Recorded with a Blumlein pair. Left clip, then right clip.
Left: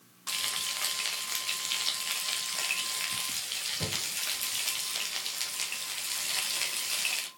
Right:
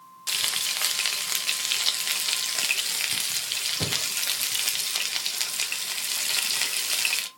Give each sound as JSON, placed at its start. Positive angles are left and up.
{"t": 0.3, "sound": "frying", "azimuth_deg": -25, "distance_m": 0.6}